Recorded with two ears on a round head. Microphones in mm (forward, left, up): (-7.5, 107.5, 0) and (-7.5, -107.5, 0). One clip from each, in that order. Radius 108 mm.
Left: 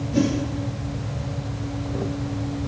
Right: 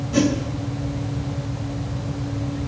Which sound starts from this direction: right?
A whoosh, at 0.1 s.